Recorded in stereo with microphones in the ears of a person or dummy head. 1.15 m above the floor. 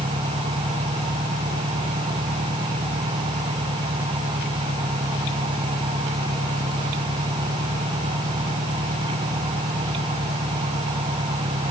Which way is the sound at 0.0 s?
15° right (ahead or behind).